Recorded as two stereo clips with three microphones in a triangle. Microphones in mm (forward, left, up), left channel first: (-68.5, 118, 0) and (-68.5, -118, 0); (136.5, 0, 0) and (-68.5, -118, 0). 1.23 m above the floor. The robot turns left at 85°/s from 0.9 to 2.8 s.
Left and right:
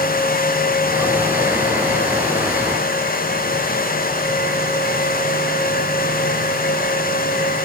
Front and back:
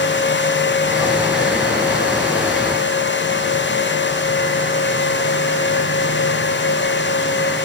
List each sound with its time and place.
Only background noise.